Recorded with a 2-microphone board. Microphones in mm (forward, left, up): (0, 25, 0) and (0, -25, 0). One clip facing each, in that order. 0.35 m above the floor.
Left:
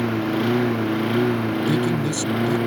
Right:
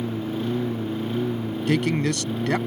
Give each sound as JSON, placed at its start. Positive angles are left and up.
{"t": 0.0, "sound": "a lawn mower", "side_deg": 80}
{"t": 1.7, "sound": "a man speaking", "side_deg": -65}